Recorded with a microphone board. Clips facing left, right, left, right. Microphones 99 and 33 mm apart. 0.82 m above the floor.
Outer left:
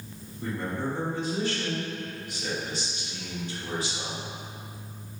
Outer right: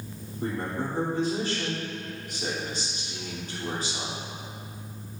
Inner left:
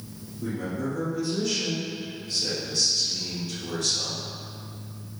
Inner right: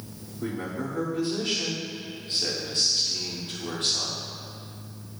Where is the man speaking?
45° right (ahead or behind), 2.5 m.